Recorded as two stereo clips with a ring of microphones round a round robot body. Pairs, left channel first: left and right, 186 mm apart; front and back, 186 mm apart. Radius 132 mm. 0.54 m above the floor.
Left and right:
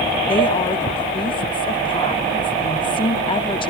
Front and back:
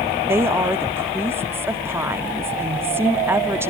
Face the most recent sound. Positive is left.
turn(degrees=115)